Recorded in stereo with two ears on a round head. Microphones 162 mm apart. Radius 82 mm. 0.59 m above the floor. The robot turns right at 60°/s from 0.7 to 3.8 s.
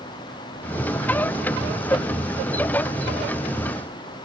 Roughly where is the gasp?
I don't hear a gasp.